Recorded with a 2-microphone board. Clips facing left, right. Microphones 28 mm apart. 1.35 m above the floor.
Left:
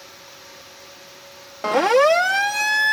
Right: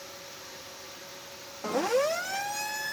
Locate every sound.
1.6 s a siren: 80° left; by 2.9 s 75° left (ahead or behind)